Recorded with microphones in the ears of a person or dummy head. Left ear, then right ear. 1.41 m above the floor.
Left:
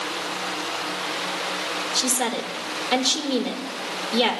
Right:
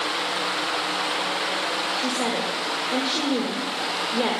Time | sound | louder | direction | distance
1.9 | a woman speaking | even | 70° left (ahead or behind) | 1.9 m